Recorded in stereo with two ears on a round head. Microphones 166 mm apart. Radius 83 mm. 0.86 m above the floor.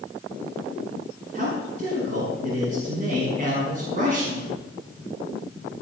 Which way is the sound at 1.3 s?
50° right (ahead or behind).